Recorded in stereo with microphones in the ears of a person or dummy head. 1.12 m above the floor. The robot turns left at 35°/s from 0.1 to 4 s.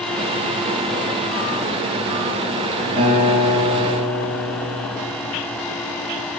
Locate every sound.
3.0 s a guitar: 30° right, 4.5 m; by 5.1 s 65° right, 4.5 m